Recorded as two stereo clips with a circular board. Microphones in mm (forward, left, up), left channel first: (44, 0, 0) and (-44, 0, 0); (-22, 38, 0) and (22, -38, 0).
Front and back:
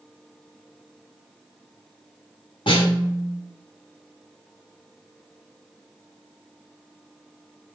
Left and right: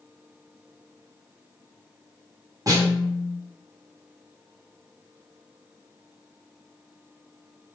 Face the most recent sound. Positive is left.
turn(degrees=-15)